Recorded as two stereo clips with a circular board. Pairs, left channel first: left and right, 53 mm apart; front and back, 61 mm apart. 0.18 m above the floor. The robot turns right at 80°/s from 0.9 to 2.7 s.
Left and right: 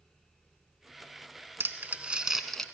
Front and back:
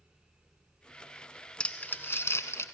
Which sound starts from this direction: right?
Crumpling, at 1.6 s.